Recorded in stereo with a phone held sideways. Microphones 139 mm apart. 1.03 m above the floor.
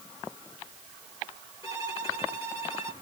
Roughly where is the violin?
Centre.